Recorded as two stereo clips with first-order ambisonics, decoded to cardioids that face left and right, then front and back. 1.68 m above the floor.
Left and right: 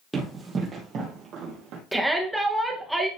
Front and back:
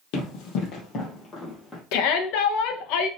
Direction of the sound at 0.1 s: 15° right.